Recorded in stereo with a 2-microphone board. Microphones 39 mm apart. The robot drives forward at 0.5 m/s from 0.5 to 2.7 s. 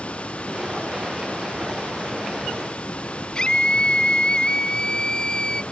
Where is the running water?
35° left (ahead or behind); by 5.7 s 30° left (ahead or behind).